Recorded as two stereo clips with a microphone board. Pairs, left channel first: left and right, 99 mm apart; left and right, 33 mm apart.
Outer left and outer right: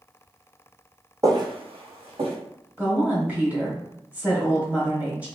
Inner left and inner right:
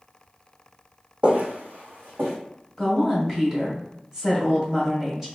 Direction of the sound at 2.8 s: 15° right (ahead or behind).